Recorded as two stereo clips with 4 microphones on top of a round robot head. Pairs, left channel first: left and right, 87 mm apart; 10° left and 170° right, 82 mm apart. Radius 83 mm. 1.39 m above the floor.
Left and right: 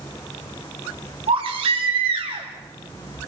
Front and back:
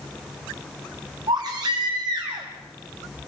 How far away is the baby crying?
About 3 m.